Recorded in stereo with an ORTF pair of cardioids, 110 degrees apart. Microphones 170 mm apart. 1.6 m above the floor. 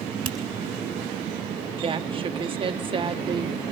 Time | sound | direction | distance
0.2 | a finger snap | 30° right | 3 m
1.8 | a woman speaking | 30° right | 1.5 m